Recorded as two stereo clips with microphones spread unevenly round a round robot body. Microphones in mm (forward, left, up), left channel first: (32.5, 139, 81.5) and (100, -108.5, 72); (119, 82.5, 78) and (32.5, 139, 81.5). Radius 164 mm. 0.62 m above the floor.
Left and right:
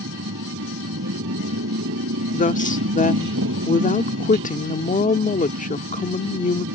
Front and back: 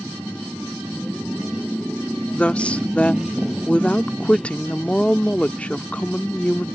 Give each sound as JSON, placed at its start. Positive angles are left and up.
{"t": 0.0, "sound": "a motorcycle", "azimuth_deg": -125}
{"t": 2.3, "sound": "a woman speaking", "azimuth_deg": 45}